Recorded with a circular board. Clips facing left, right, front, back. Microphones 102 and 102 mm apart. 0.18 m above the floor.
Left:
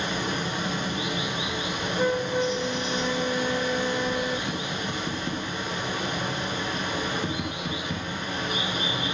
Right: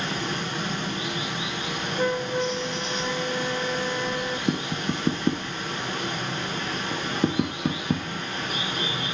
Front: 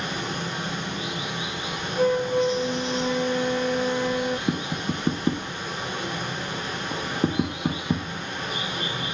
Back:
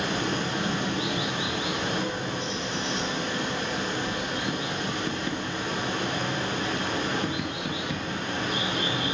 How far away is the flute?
About 0.8 m.